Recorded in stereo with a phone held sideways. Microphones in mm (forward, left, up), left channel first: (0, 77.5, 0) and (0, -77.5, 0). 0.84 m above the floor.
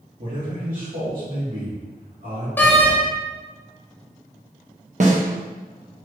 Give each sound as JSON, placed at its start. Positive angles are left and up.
{"t": 0.2, "sound": "a man speaking", "side_deg": -65, "distance_m": 1.6}
{"t": 2.6, "sound": "a door slam", "side_deg": 10, "distance_m": 0.6}
{"t": 5.0, "sound": "a snare drum", "side_deg": -50, "distance_m": 0.7}